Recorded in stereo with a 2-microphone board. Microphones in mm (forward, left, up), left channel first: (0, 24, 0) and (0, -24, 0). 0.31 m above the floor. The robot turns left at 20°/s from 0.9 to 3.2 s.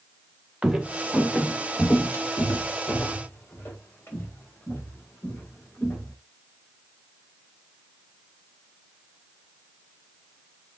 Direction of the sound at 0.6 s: 15° right (ahead or behind).